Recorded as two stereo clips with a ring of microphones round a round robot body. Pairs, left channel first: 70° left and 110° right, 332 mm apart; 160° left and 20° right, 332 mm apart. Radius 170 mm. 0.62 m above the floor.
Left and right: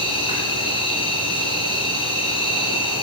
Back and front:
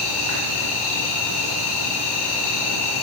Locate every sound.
0.0 s an insect: 145° left, 5 m